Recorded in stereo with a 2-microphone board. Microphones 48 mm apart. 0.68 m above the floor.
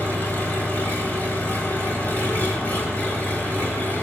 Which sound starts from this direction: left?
An engine running, at 0.0 s.